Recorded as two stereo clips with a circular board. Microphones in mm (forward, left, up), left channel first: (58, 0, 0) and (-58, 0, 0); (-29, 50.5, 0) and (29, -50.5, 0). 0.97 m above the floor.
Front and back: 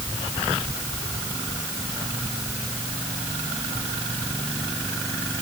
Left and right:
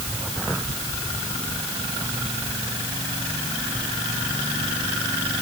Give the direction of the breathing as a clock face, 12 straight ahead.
I don't hear breathing.